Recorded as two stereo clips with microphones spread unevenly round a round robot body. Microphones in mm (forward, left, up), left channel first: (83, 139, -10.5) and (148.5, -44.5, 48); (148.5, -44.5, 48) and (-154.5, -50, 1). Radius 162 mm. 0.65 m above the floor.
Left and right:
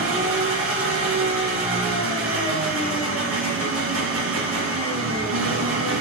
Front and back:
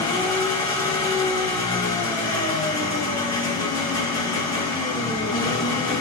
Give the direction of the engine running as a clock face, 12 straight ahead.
3 o'clock.